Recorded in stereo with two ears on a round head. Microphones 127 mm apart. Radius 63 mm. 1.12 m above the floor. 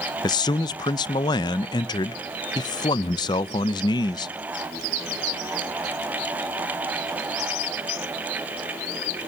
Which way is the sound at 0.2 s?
30° left (ahead or behind).